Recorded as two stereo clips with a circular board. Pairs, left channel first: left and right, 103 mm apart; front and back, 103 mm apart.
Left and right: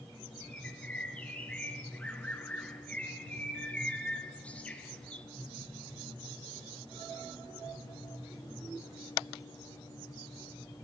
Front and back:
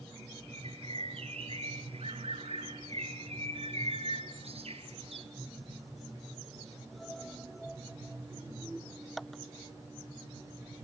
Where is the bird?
170° left, 1.6 m.